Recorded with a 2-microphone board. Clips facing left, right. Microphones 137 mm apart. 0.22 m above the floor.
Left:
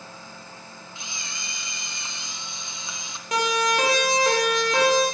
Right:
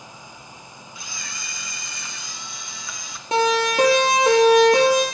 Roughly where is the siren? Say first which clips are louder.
Right 4 dB; right.